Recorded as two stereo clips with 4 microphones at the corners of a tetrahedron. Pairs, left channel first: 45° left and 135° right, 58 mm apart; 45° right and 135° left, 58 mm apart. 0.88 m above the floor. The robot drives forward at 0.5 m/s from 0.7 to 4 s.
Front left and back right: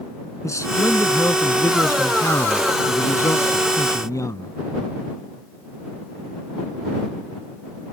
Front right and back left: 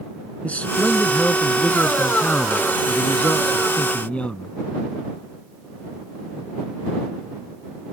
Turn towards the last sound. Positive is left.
turn(degrees=25)